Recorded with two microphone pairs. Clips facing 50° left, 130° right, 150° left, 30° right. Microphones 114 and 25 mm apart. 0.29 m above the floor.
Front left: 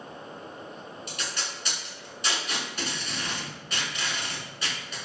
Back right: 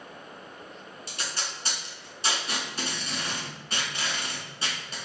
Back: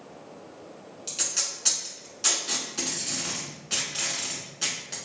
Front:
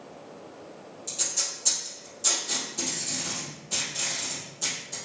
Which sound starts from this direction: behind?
Tape being pulled, at 1.1 s.